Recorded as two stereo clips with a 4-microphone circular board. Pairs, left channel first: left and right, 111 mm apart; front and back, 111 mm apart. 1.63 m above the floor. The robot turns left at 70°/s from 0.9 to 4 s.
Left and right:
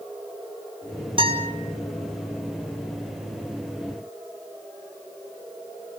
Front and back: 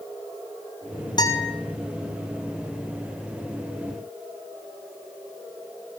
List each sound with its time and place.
1.2 s a guitar: 50° right, 7.5 m; by 1.5 s 75° right, 7.5 m